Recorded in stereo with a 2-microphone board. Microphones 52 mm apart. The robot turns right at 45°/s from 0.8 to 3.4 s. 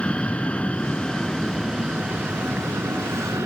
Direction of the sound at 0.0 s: 20° left (ahead or behind).